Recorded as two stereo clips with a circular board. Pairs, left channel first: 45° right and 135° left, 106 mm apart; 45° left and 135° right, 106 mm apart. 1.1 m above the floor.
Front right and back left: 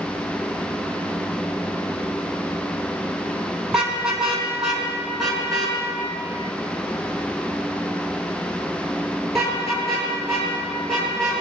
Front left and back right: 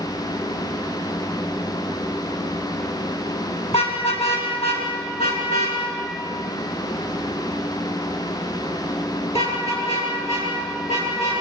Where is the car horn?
50° left, 5 m; by 11.4 s 45° left, 11.5 m.